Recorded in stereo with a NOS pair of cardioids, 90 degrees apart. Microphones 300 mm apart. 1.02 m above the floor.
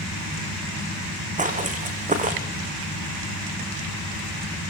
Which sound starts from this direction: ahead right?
Footsteps, at 1.4 s.